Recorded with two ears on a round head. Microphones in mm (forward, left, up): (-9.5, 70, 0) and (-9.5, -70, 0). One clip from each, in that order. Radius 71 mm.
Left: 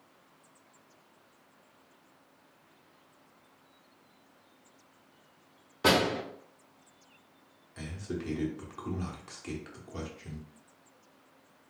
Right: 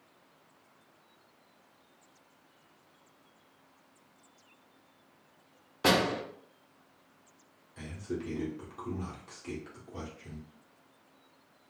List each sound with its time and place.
5.8 s a door slam: 10° right (ahead or behind), 0.9 m
7.8 s a man speaking: 25° left (ahead or behind), 0.9 m